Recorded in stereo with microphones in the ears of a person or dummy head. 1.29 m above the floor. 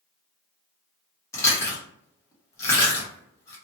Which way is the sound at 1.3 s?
15° left (ahead or behind).